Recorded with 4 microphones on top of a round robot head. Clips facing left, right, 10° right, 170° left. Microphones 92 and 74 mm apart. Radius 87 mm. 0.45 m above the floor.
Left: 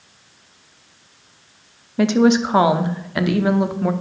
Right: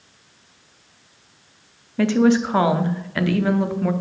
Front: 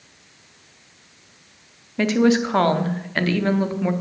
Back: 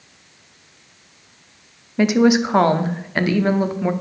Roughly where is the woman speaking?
Behind left.